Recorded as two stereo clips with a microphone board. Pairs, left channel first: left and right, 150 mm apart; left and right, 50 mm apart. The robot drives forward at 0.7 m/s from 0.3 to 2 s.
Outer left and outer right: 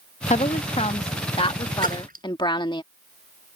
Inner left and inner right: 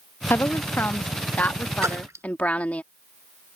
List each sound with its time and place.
0.3 s a woman speaking: 55° left (ahead or behind); by 2.8 s 35° left (ahead or behind)
1.8 s a splash: 80° right; by 2.2 s 85° right